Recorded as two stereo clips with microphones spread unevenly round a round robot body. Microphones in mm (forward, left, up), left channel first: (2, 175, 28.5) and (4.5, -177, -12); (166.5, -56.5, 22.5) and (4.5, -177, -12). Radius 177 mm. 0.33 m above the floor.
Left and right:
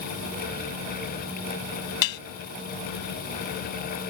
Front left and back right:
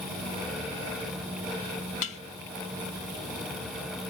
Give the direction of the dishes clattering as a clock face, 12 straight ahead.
9 o'clock.